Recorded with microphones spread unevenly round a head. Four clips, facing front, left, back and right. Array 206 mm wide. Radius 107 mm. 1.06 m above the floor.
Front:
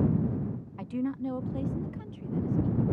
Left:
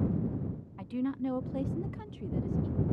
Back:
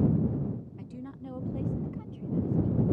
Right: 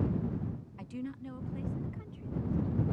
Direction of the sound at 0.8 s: 10° left.